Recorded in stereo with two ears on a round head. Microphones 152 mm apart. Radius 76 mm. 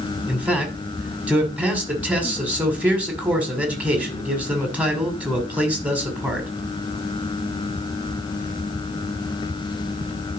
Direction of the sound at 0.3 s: 10° right (ahead or behind).